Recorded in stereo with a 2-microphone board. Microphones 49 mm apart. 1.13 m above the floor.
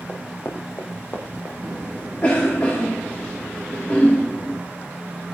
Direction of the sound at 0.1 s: 60° left (ahead or behind).